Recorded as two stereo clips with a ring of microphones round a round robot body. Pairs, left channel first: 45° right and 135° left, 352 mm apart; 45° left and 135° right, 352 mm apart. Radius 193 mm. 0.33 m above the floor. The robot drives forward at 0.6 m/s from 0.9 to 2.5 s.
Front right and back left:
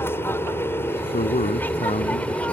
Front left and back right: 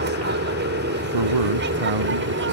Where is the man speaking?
115° right; by 2.5 s 120° right.